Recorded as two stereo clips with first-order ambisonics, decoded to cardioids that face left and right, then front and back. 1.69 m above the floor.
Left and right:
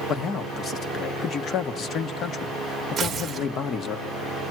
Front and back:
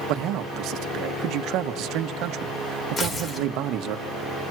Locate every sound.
0.1 s a man speaking: 145° left, 1.4 m
3.0 s tearing paper: 40° right, 1.5 m